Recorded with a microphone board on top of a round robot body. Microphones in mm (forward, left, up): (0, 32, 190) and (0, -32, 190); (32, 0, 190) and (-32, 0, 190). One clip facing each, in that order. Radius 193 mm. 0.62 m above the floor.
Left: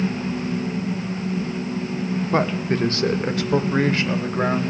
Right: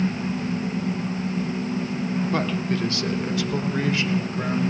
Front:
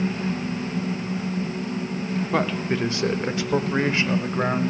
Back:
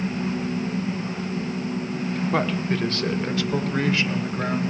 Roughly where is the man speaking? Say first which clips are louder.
Left 3 dB, front 1 dB; left.